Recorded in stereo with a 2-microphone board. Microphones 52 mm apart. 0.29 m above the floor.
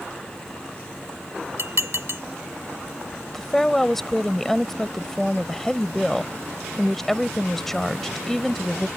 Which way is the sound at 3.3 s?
10° left (ahead or behind).